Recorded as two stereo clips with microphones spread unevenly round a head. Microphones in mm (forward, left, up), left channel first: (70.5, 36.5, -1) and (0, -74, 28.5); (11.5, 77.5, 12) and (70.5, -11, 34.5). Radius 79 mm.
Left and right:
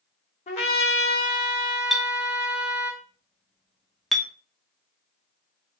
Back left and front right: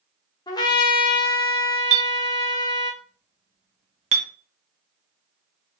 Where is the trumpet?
80° left, 0.9 m.